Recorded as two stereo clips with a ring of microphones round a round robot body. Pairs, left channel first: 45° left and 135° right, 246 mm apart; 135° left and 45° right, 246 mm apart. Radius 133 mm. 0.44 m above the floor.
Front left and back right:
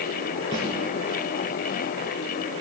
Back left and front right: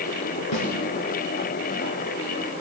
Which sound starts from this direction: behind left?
A snare drum, at 0.5 s.